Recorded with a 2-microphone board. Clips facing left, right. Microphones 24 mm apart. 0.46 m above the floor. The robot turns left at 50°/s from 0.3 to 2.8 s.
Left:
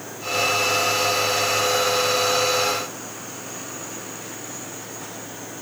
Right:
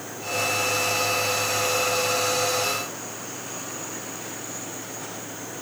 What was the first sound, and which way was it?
Only background noise.